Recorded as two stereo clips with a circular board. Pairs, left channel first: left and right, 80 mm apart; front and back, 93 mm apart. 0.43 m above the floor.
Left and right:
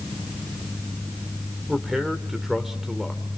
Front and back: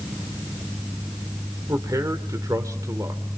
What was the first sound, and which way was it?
A man speaking, 170° right.